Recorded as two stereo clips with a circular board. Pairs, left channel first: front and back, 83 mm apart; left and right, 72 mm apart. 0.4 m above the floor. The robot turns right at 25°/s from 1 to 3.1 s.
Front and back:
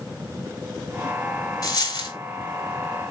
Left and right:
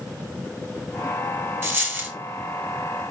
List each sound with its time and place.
1.6 s a dropped coin: 35° right, 0.8 m; by 2.2 s 25° right, 0.8 m